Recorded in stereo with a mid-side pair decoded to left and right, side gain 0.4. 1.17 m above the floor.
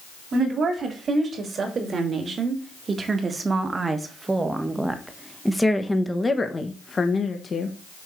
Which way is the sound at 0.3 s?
60° right.